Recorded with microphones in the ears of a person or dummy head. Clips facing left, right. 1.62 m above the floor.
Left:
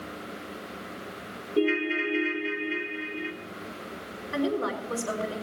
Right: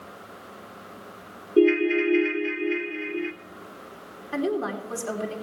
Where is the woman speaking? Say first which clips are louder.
Right 1 dB; 65° right (ahead or behind), 4 m.